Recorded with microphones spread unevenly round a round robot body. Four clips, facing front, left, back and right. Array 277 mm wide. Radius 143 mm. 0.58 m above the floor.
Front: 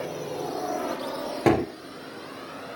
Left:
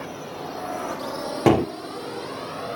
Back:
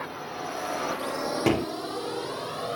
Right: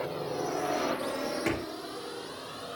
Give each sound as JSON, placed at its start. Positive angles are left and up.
{"t": 0.0, "sound": "a drone", "azimuth_deg": -35}
{"t": 1.5, "sound": "a gunshot", "azimuth_deg": 75}